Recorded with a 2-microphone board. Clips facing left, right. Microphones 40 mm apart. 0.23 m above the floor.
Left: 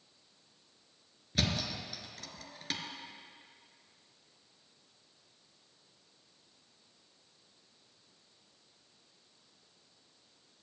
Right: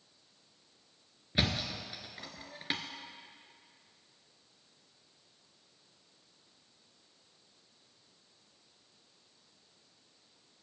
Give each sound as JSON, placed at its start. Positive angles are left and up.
{"t": 1.4, "sound": "a thud", "side_deg": -20, "distance_m": 1.4}